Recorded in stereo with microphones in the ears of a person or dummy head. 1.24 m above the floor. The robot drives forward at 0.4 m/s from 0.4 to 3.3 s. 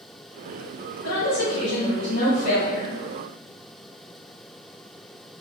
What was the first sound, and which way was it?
A woman speaking, 65° left (ahead or behind).